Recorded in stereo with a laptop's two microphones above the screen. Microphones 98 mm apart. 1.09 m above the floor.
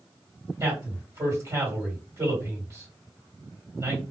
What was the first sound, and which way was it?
A man speaking, 40° right (ahead or behind).